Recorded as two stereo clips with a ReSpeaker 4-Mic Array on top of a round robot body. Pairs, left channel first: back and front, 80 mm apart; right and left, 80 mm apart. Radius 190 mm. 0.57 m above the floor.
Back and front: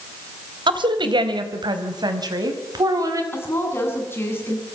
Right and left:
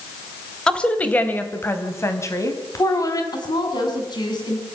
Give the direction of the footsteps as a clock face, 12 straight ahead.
I don't hear footsteps.